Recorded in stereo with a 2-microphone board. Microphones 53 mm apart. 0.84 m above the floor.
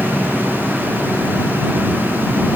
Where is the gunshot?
I don't hear a gunshot.